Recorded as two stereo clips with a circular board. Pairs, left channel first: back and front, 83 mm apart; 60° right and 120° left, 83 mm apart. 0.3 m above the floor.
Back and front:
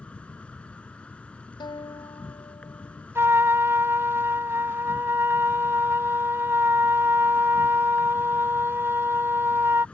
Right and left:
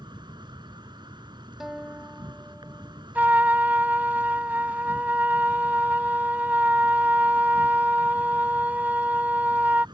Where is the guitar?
150° right.